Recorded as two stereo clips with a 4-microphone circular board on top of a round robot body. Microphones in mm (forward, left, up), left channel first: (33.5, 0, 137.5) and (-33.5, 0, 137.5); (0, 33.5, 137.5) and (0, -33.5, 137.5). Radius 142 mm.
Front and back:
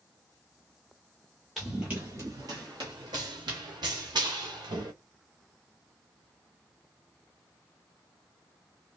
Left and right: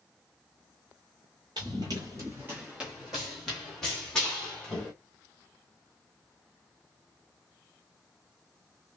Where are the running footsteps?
90° right, 0.8 m; by 4.9 s 165° left, 1.9 m.